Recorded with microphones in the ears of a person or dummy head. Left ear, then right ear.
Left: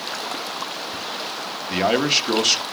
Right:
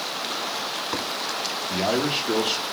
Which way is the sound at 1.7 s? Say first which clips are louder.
Left 6 dB; 50° left (ahead or behind).